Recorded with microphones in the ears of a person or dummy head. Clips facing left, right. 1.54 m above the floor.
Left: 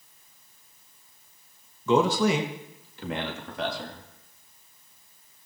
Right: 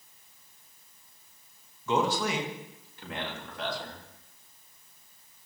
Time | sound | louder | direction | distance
1.9 | a man speaking | left 6 dB | 85° left | 2 m